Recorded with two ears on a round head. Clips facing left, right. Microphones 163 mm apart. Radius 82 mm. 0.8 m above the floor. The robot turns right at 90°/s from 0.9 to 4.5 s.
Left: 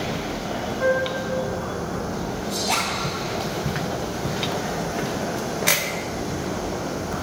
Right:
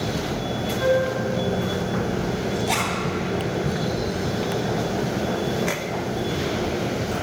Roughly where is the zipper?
Centre.